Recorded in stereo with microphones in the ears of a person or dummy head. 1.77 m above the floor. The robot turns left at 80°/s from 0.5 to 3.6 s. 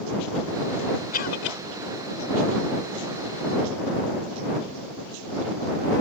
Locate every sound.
1.1 s a cough: 130° left; by 1.6 s 90° left